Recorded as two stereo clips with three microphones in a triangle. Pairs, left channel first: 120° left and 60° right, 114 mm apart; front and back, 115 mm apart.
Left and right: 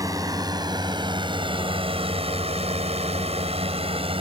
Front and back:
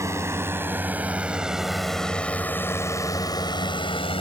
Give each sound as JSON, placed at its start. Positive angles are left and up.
{"t": 0.0, "sound": "a drone", "azimuth_deg": -120}